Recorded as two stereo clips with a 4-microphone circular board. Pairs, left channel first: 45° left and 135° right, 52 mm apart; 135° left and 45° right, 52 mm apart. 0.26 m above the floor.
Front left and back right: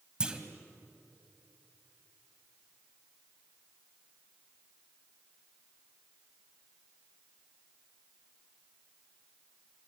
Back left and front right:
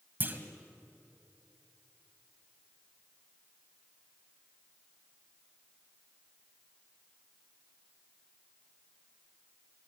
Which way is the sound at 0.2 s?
70° right.